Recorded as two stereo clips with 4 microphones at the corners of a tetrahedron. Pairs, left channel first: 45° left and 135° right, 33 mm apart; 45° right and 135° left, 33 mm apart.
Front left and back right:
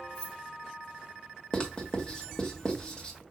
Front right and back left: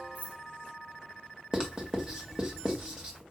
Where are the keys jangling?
110° left, 1.0 m.